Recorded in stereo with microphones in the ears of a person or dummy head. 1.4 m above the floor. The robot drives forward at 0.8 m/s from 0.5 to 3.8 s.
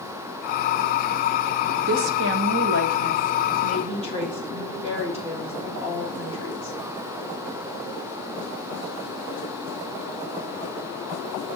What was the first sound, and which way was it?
A woman speaking, 60° right (ahead or behind).